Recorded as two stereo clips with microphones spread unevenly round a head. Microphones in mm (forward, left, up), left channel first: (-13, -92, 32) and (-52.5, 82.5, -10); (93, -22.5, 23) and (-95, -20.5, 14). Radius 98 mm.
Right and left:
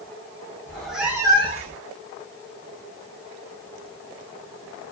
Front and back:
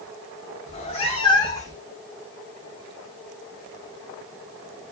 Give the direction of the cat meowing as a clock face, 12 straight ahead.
1 o'clock.